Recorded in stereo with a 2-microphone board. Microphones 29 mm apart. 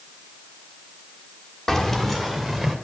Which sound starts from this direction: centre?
Keys jangling, at 1.7 s.